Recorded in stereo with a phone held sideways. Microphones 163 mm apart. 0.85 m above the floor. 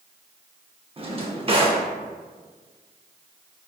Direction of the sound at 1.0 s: 35° right (ahead or behind).